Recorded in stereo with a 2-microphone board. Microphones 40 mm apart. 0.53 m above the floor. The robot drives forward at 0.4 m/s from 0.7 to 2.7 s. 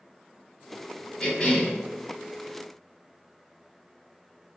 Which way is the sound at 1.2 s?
25° left (ahead or behind).